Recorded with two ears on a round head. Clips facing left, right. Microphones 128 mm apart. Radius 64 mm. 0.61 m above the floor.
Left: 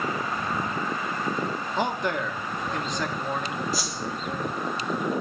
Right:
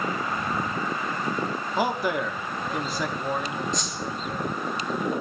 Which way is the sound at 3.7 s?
5° left (ahead or behind).